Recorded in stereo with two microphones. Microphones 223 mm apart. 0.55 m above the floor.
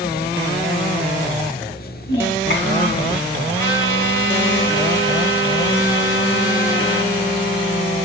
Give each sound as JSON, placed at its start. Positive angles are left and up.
{"t": 2.1, "sound": "a child speaking", "side_deg": 65, "distance_m": 1.5}
{"t": 3.5, "sound": "a trumpet", "side_deg": 70, "distance_m": 1.3}